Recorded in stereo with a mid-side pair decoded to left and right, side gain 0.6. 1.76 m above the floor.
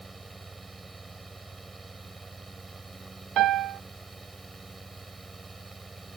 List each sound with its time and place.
0.0 s a fan: 20° right
3.4 s a piano: 55° right